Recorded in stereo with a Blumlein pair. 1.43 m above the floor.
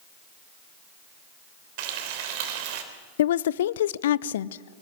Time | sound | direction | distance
1.8 | frying | 45° right | 3 m
3.2 | a woman speaking | 60° left | 0.5 m